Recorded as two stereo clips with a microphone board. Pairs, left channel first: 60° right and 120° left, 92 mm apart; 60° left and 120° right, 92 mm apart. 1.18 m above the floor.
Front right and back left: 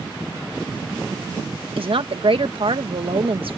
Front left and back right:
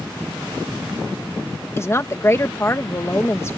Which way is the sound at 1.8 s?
120° left.